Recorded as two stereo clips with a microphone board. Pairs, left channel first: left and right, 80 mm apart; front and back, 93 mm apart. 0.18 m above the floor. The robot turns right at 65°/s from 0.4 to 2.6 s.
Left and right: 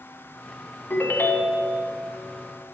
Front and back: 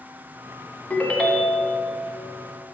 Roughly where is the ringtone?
Ahead left.